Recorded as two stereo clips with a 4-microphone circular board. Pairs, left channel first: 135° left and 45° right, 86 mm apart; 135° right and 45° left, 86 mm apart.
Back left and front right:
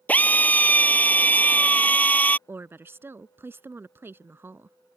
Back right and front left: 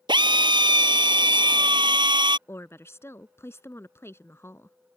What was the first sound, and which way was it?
A drill, 65° left.